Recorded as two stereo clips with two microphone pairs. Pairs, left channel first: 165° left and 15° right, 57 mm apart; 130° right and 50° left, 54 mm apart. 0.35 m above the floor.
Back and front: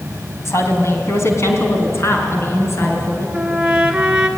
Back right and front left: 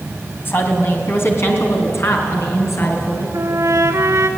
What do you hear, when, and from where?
0.5 s a woman speaking: 170° right, 3 m; by 3.2 s 155° right, 6 m
3.3 s a trumpet: 60° left, 1.5 m